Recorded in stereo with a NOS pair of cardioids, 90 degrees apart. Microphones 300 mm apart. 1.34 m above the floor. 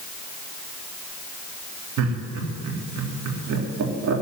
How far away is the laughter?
About 3.5 m.